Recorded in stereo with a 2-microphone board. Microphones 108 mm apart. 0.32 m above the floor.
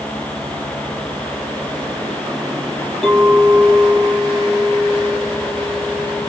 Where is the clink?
Centre (ahead or behind), 6.5 m.